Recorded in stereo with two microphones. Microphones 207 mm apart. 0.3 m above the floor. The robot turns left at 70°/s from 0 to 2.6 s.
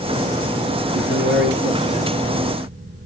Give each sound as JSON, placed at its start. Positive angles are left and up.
{"t": 0.9, "sound": "a man speaking", "azimuth_deg": -65, "distance_m": 2.5}